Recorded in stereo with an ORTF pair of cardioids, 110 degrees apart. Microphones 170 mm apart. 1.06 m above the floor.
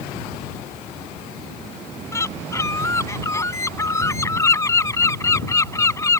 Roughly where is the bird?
Ahead.